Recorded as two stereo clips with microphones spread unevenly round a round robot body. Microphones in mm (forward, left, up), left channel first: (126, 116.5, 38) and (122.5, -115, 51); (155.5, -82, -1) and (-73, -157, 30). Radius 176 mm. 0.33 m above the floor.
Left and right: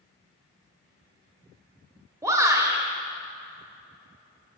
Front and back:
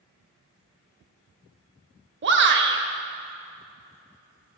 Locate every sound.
2.2 s a shout: 165° right, 1.1 m